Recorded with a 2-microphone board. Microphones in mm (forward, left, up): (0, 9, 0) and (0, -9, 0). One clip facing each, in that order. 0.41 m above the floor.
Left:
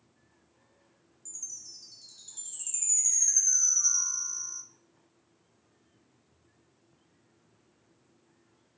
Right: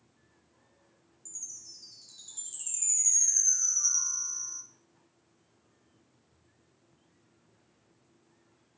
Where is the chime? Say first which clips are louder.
Left 2 dB; 10° left (ahead or behind), 1.9 m.